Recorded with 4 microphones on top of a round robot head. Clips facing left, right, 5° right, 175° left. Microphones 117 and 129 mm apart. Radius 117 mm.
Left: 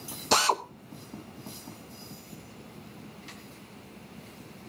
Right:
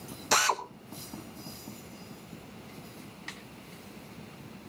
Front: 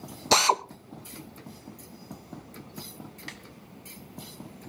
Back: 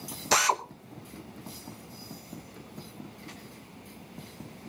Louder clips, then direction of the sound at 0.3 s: Left 3 dB, front 3 dB; 40° left.